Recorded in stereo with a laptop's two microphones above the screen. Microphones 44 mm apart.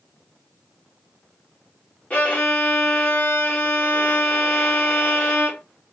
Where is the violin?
30° left (ahead or behind), 1.6 m.